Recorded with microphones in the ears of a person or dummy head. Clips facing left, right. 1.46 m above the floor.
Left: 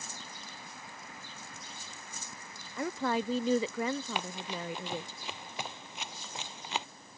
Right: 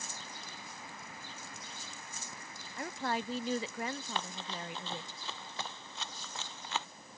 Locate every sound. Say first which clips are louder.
2.8 s a woman speaking: left 5 dB; 60° left (ahead or behind)
4.2 s running footsteps: left 3 dB; 15° left (ahead or behind); by 6.9 s 20° left (ahead or behind)